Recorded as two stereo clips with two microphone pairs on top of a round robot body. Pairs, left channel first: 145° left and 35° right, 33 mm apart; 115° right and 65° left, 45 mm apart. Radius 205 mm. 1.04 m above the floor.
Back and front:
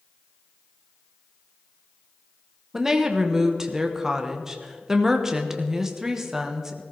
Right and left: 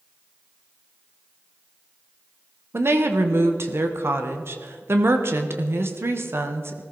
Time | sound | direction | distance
2.7 | a woman speaking | 40° left | 1.3 m